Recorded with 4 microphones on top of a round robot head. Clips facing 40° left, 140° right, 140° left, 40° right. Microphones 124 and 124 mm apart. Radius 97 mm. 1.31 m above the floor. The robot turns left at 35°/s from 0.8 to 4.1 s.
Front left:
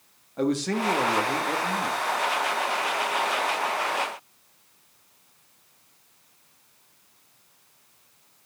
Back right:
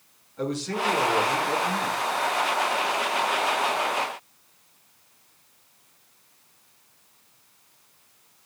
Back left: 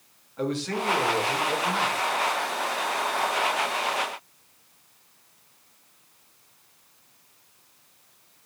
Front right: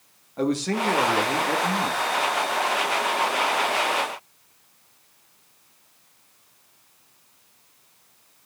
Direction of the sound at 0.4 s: 5° left.